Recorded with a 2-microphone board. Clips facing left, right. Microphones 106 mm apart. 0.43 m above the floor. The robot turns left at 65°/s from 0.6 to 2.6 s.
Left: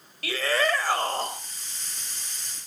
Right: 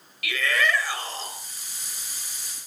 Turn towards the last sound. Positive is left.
turn(degrees=10)